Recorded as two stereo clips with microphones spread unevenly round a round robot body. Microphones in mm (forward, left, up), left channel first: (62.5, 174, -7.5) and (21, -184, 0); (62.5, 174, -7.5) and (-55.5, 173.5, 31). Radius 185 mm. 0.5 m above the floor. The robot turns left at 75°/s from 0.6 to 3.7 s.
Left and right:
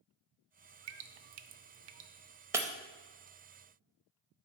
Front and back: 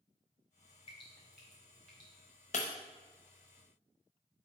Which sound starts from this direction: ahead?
Breaking glass, at 2.5 s.